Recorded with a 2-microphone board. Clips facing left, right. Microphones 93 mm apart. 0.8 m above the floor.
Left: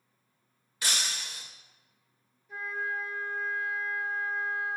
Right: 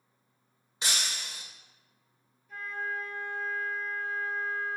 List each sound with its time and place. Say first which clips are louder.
0.8 s breaking glass: even; 25° right (ahead or behind), 1.5 m
2.5 s a flute: left 1 dB; 5° left (ahead or behind), 1.7 m